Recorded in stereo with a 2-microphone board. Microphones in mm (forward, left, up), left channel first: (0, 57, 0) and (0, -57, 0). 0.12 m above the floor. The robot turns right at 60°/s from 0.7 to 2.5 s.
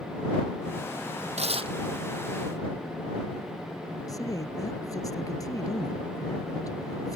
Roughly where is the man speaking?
Left.